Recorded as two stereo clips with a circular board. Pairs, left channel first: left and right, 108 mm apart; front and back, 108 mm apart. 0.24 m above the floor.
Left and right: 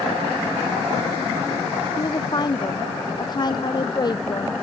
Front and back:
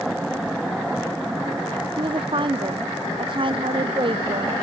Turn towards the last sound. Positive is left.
turn(degrees=140)